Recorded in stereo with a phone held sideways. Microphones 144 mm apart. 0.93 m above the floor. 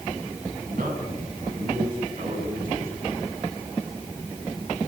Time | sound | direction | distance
0.7 | a man speaking | 75° right (ahead or behind) | 8 m